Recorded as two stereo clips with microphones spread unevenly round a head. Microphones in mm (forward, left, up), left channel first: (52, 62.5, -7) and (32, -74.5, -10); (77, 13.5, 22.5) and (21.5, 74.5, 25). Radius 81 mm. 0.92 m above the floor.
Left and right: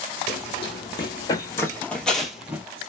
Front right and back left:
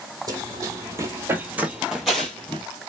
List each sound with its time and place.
0.3 s running footsteps: 115° left, 1.3 m; by 2.6 s 45° right, 0.9 m